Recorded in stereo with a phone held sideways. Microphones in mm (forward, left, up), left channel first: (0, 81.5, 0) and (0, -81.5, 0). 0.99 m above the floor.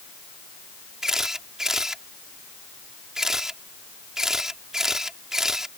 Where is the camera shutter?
5° right (ahead or behind).